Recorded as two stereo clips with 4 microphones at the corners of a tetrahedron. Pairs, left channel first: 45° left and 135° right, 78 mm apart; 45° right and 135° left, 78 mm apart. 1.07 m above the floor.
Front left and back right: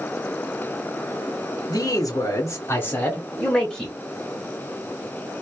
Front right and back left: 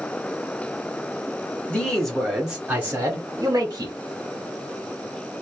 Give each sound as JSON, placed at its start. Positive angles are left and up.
{"t": 1.7, "sound": "a man speaking", "azimuth_deg": 30, "distance_m": 0.9}